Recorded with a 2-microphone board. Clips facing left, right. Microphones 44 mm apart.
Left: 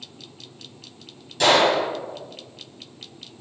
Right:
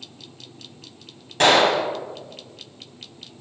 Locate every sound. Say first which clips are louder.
1.4 s a gunshot: right 1 dB; 50° right (ahead or behind), 0.6 m